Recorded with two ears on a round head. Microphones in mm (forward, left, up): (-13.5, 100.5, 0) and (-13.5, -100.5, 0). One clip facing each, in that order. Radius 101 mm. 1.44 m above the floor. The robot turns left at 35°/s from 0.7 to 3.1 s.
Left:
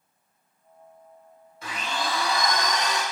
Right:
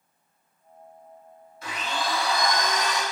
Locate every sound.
1.6 s a blender: 100° left, 1.5 m; by 3.0 s 50° left, 1.5 m